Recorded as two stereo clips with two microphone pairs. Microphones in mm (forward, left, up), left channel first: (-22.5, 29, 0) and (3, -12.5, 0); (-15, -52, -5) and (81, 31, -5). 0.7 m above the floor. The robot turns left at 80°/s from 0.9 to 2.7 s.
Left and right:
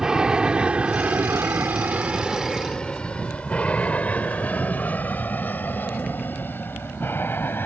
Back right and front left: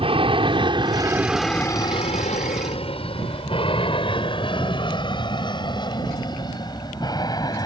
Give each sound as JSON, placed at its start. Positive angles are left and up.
{"t": 0.0, "sound": "an aircraft", "azimuth_deg": 15}